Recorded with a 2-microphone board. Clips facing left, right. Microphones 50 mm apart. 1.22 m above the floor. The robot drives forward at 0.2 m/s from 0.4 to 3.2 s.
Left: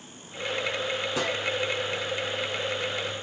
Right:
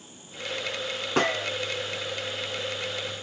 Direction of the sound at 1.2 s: 55° right (ahead or behind).